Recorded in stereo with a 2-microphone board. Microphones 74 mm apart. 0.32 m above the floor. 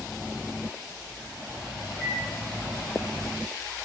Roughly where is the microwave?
Left.